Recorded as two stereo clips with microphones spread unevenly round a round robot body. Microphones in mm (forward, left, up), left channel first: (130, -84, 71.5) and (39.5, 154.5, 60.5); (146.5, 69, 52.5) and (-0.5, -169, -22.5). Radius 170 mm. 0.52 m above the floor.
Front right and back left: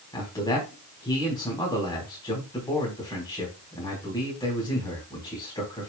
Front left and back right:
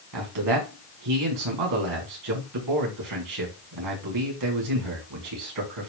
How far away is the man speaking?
About 4.5 m.